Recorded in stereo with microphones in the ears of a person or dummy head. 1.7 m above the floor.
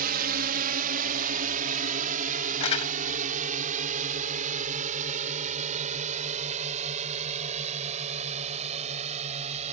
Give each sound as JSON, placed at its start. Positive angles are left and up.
{"t": 0.0, "sound": "a drone", "side_deg": -55}
{"t": 2.6, "sound": "crumpling", "side_deg": 35}